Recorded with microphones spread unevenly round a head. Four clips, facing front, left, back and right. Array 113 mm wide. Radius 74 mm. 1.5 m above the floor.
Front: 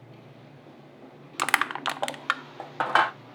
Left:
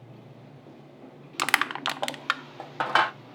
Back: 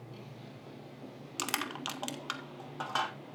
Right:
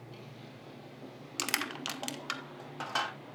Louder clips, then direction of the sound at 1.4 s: Left 11 dB, front 11 dB; 20° left.